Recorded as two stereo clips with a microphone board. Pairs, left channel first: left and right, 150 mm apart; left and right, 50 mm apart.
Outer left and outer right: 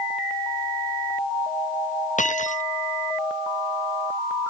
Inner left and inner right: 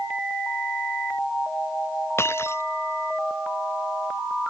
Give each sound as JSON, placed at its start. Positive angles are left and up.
{"t": 2.2, "sound": "breaking glass", "side_deg": 55}